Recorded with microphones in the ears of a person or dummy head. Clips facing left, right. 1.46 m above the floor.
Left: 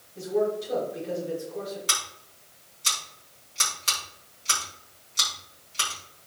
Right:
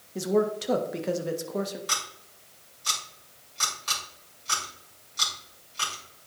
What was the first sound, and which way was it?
A man speaking, 85° right.